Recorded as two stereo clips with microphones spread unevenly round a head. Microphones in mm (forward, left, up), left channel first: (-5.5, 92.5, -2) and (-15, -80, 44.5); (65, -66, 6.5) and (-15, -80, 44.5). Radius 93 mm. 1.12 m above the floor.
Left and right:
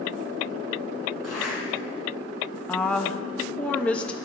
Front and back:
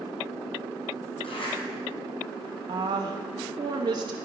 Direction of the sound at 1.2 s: 5° right.